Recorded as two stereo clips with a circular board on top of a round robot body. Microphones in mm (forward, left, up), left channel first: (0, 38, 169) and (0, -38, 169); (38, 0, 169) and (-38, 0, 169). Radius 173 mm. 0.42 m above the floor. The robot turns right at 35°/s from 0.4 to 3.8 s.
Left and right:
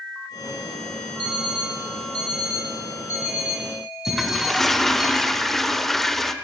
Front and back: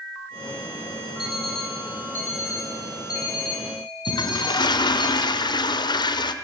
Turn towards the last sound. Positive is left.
turn(degrees=5)